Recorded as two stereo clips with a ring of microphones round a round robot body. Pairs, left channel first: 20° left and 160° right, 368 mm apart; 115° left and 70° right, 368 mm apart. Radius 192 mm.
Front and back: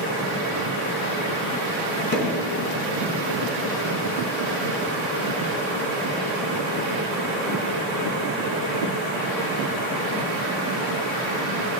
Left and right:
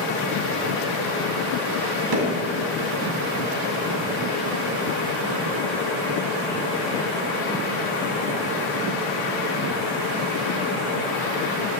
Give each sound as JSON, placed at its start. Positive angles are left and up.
{"t": 2.1, "sound": "hammering", "azimuth_deg": -40, "distance_m": 3.0}